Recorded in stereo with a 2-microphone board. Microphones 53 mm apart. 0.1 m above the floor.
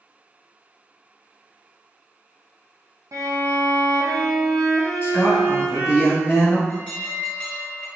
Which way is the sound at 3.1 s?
75° right (ahead or behind).